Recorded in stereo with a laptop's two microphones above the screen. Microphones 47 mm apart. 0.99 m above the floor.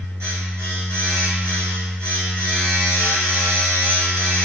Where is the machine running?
85° right, 1.1 m.